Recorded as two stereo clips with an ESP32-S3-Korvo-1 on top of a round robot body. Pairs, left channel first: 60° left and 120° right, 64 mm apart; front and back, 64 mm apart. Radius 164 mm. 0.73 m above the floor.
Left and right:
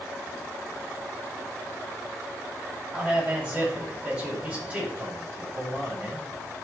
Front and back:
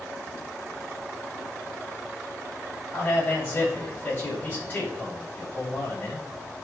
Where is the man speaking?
55° right, 4.5 m.